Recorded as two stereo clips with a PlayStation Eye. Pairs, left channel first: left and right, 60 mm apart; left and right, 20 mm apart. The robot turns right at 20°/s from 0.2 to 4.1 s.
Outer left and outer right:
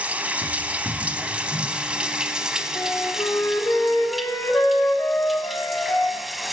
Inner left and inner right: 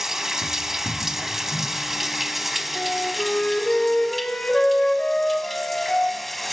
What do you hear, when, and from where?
0.0 s running water: 25° right (ahead or behind), 0.9 m; by 6.5 s centre (ahead or behind), 0.9 m
2.7 s a flute: 90° left, 3 m; by 6.2 s 65° left (ahead or behind), 3 m